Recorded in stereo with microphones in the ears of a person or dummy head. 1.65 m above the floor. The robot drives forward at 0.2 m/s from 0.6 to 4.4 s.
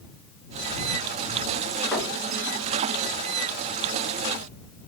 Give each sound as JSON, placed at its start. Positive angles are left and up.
{"t": 1.9, "sound": "knocking", "side_deg": -5, "distance_m": 1.7}